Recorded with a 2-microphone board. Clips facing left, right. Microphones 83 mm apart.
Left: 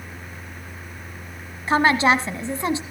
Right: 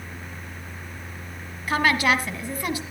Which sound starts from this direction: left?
A woman speaking, at 1.7 s.